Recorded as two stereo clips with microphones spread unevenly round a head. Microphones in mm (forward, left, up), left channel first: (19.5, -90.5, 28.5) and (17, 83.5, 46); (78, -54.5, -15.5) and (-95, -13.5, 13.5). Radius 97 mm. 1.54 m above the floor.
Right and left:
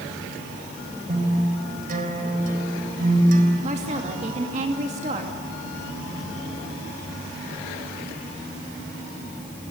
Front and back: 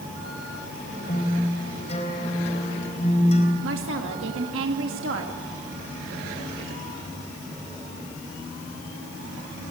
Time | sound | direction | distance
1.1 | a guitar | 50° left | 4 m
3.6 | a woman speaking | 145° left | 2.5 m